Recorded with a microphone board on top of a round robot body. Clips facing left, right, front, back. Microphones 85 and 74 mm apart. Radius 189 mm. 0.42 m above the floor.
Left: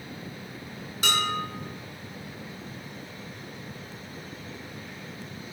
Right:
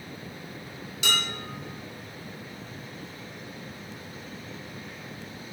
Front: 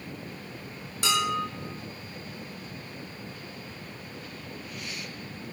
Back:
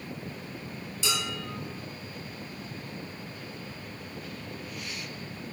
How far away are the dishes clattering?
About 5.5 m.